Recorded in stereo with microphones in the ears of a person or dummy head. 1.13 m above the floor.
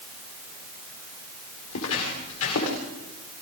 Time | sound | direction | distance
1.7 | footsteps | 75° left (ahead or behind) | 8 m